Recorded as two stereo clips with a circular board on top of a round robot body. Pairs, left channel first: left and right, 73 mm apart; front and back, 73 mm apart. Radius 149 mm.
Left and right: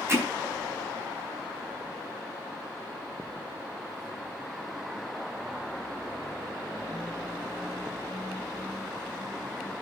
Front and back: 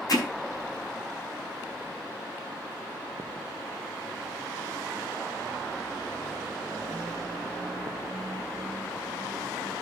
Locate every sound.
0.1 s hammering: 35° right, 4.5 m